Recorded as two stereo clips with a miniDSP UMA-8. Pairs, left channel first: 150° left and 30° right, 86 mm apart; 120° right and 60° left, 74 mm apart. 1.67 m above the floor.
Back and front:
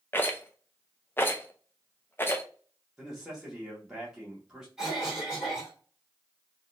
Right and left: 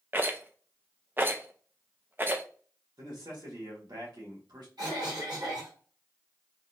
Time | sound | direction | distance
0.1 | a rattle | 105° left | 0.6 m
3.0 | a man speaking | 50° left | 1.7 m
4.8 | a cough | 50° left | 2.5 m